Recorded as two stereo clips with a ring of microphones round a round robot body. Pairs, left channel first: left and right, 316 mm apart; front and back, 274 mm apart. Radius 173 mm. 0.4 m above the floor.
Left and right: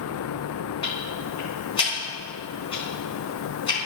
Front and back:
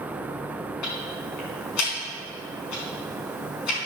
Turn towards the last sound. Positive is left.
turn(degrees=15)